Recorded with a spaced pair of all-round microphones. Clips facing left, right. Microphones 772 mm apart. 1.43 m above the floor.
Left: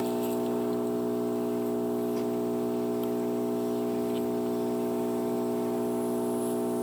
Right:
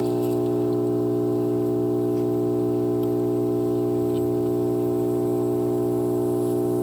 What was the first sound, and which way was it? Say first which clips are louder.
An engine running: right 7 dB; 65° right (ahead or behind).